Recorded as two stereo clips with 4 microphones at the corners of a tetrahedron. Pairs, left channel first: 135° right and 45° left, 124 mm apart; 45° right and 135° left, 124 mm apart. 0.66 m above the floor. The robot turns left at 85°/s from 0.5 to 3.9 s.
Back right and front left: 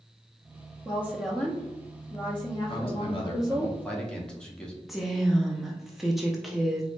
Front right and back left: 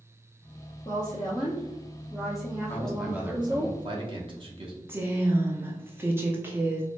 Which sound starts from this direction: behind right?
A man speaking, at 2.7 s.